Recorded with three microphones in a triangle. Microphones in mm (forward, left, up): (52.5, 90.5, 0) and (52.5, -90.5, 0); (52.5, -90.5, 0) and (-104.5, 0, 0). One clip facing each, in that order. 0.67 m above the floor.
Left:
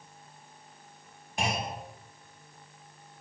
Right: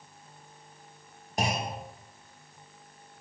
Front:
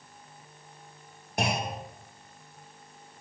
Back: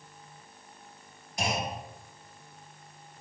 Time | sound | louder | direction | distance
1.4 | a clunk | right 2 dB, front 2 dB | 45° right | 0.6 m